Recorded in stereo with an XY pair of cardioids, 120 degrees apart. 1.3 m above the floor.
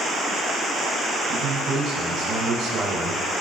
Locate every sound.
1.3 s a man speaking: 60° right, 7.5 m